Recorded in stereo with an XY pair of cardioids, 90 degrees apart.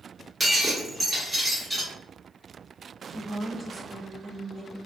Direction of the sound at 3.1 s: 10° left.